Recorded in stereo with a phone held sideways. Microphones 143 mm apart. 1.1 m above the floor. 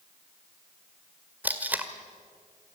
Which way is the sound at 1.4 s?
10° right (ahead or behind).